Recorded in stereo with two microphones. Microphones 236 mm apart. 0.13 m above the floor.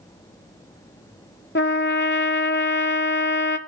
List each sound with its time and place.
1.6 s a trumpet: 55° left (ahead or behind), 0.5 m